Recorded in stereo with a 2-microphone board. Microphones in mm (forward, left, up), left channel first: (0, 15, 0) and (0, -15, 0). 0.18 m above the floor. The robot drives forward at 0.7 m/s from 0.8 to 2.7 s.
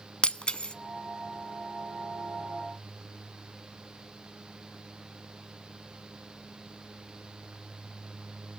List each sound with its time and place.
0.2 s breaking glass: 35° left (ahead or behind), 0.6 m